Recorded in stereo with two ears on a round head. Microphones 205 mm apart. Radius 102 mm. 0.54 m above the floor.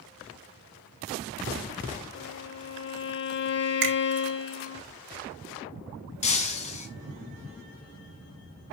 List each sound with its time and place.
2.1 s a violin: 45° left (ahead or behind), 0.8 m
3.8 s a finger snap: 50° right (ahead or behind), 2.5 m
6.2 s breaking glass: 30° left (ahead or behind), 1.6 m